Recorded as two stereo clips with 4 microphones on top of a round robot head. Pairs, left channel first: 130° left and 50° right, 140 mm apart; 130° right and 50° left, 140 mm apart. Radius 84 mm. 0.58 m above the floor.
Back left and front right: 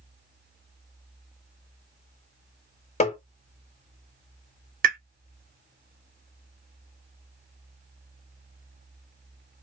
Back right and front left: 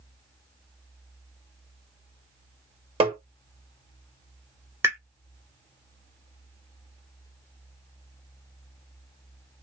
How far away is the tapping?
About 1.4 m.